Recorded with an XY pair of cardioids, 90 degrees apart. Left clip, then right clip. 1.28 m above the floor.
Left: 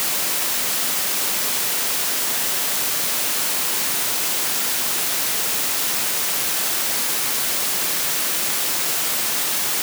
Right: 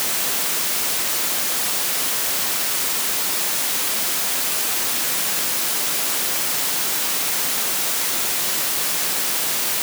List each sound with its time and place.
Only background noise.